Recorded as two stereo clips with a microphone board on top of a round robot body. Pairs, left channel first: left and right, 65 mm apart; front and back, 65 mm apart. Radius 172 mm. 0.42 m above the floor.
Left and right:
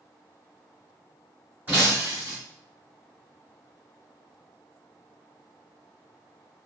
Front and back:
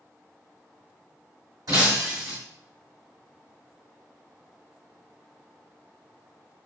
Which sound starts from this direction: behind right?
Breaking glass, at 1.7 s.